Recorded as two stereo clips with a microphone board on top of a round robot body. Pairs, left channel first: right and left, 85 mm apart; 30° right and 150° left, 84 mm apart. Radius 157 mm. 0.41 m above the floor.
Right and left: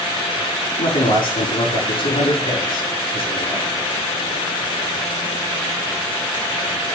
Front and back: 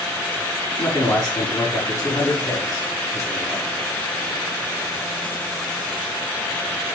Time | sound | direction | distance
0.8 | a man speaking | 80° right | 4.5 m